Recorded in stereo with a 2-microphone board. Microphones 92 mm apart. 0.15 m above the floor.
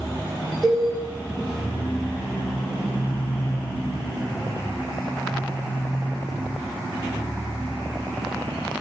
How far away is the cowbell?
About 4 m.